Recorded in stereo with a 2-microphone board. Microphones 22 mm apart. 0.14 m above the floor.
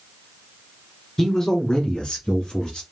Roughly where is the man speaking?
Centre.